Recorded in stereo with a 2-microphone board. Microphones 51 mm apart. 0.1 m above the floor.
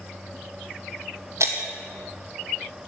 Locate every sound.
1.4 s breaking glass: 65° right (ahead or behind), 1.8 m